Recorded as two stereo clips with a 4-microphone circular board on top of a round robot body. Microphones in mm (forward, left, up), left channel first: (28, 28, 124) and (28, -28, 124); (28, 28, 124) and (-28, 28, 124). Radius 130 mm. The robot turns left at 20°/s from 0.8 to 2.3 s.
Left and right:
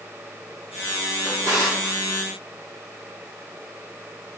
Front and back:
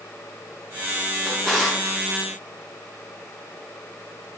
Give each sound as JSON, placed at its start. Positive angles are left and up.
{"t": 1.2, "sound": "a drawer", "azimuth_deg": -80, "distance_m": 2.0}